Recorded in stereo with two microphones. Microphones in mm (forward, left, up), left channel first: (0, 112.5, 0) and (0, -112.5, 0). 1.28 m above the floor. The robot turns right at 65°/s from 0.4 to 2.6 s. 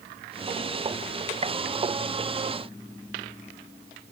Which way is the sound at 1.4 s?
25° right (ahead or behind).